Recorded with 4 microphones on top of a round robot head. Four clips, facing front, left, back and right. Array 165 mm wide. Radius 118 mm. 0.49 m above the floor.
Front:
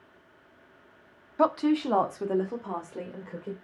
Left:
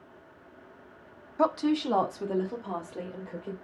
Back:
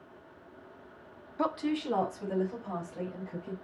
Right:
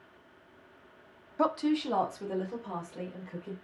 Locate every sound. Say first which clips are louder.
1.4 s a woman speaking: left 2 dB, front 7 dB; 15° left, 0.8 m; by 3.5 s 20° left, 2 m